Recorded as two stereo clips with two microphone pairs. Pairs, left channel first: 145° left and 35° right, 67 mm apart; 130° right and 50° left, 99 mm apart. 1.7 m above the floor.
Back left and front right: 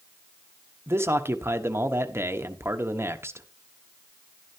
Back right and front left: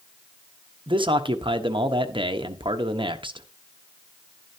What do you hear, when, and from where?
0.9 s a man speaking: 15° left, 1.2 m